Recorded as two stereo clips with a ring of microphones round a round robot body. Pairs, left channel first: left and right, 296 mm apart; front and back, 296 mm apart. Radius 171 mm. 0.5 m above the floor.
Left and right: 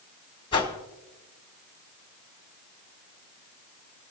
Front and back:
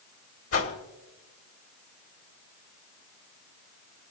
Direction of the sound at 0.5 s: 20° left.